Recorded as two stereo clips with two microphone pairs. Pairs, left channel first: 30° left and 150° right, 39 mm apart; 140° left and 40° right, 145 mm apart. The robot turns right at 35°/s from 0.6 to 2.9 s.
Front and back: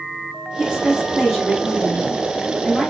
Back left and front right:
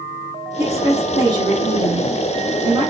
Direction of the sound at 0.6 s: 95° right.